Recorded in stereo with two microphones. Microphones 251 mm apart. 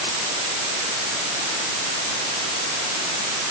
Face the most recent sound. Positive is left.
No sound to turn to.